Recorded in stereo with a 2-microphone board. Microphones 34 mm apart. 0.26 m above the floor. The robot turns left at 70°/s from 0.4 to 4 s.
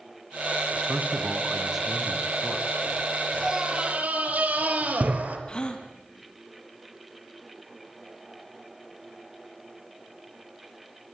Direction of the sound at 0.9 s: 100° right.